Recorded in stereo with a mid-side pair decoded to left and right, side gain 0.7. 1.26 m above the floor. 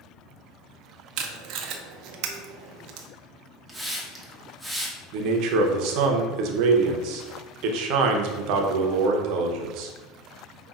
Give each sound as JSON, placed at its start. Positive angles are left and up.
{"t": 1.2, "sound": "tape being pulled", "azimuth_deg": -60, "distance_m": 0.5}
{"t": 3.7, "sound": "a hiss", "azimuth_deg": 0, "distance_m": 1.0}
{"t": 5.1, "sound": "a man speaking", "azimuth_deg": -65, "distance_m": 0.7}